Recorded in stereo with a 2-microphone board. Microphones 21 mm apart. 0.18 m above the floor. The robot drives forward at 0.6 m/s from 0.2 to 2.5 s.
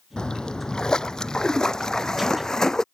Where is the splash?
40° left (ahead or behind); by 2.8 s 25° left (ahead or behind).